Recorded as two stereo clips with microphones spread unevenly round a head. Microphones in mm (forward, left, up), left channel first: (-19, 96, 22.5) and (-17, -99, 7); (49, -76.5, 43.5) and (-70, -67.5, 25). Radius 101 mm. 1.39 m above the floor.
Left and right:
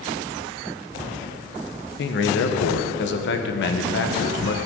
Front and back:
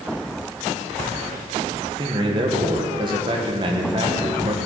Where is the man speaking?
120° left, 1.3 m.